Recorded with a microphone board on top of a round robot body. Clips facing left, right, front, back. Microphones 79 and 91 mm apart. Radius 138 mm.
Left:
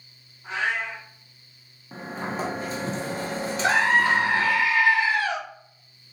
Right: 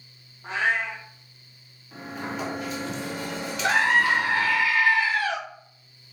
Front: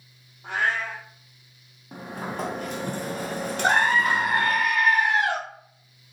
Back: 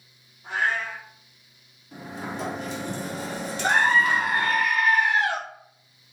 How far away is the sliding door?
About 1.0 m.